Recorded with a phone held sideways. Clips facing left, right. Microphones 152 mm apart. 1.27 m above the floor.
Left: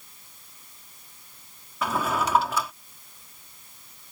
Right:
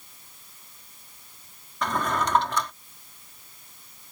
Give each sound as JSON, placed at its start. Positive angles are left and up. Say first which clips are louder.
{"t": 1.8, "sound": "a drawer", "louder": "even", "side_deg": 5}